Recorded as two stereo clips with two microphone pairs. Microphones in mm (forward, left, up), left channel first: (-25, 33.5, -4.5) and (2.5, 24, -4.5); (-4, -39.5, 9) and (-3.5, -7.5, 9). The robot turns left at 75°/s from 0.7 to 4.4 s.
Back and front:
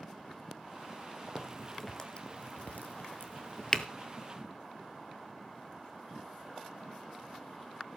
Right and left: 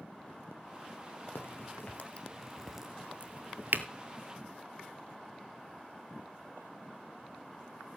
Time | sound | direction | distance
1.4 | a crack | 85° right | 1.8 m